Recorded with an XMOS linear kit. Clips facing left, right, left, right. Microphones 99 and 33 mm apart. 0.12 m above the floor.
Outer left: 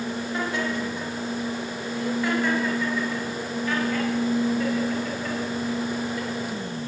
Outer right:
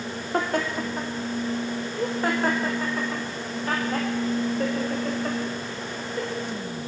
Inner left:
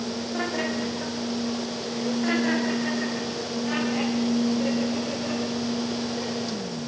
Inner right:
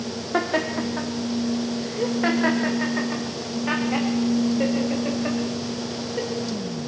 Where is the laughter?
50° right (ahead or behind), 4 m; by 6.3 s 35° right (ahead or behind), 10.5 m.